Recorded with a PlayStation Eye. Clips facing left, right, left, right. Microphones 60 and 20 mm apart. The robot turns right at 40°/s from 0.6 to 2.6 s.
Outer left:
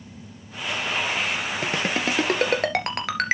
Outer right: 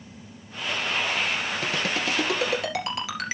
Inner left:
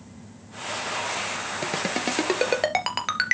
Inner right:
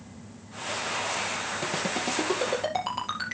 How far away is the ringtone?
About 2.5 m.